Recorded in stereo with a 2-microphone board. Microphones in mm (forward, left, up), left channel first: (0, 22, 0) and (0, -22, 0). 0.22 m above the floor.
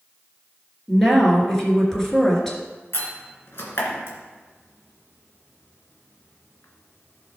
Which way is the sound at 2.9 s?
65° left (ahead or behind).